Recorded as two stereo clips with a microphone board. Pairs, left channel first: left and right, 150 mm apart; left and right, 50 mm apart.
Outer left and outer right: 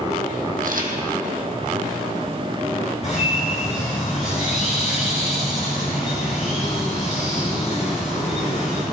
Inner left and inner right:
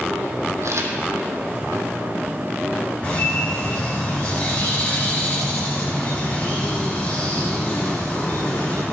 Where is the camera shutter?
70° right (ahead or behind), 2 m.